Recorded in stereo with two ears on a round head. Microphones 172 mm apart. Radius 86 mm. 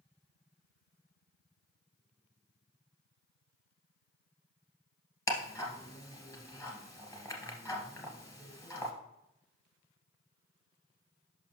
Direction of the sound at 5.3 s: 15° left (ahead or behind).